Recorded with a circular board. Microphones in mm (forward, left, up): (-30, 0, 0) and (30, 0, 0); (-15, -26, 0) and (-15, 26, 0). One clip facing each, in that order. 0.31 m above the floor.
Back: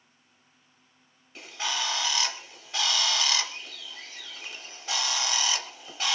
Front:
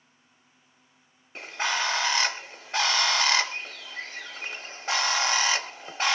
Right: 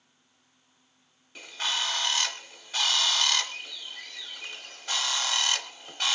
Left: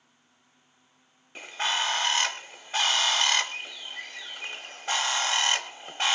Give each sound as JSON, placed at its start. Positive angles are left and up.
{"t": 1.4, "sound": "a bird", "azimuth_deg": 40, "distance_m": 0.7}